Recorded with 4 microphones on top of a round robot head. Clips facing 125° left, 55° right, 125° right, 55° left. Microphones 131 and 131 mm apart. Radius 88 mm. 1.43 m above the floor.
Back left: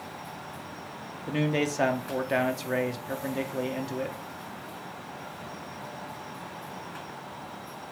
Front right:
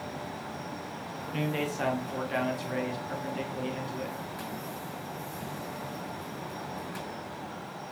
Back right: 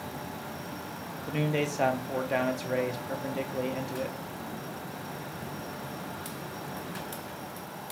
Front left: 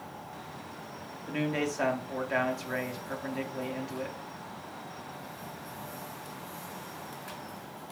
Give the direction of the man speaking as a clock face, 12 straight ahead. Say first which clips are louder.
Back left 5 dB, back right 1 dB; 6 o'clock.